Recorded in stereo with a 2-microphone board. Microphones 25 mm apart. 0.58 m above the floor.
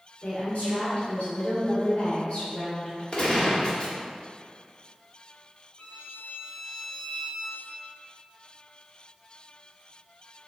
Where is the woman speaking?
50° left (ahead or behind), 2.5 m; by 3.0 s 40° left (ahead or behind), 3.5 m.